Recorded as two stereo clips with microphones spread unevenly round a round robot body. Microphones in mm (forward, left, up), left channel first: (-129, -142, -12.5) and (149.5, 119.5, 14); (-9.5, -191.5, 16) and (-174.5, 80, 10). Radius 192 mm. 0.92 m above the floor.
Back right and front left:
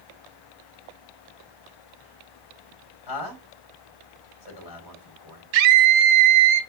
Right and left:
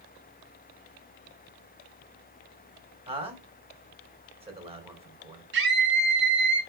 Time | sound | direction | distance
3.1 | a man speaking | 165° right | 3.5 m
5.5 | a scream | 60° left | 2 m